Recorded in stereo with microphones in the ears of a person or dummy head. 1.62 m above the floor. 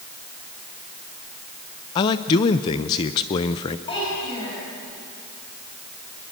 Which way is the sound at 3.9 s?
35° left (ahead or behind).